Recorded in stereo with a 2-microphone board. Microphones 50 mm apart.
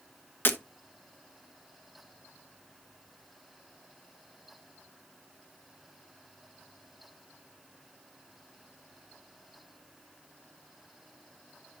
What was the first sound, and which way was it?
Breaking glass, 45° left (ahead or behind).